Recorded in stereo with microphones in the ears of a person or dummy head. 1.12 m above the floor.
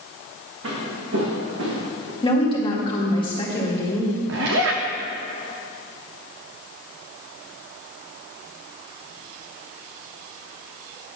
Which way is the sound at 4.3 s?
65° right (ahead or behind).